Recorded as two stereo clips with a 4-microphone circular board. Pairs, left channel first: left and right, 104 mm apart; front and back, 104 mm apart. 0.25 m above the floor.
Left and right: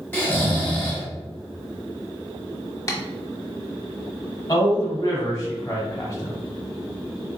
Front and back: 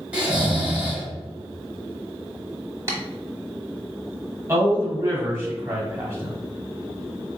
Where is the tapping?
135° left, 1.0 m.